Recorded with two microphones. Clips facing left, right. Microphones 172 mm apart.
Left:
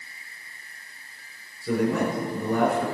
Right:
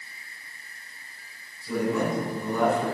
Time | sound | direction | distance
1.6 | a man speaking | 70° left (ahead or behind) | 4 m